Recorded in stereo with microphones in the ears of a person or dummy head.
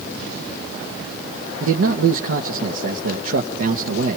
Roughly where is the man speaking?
Right.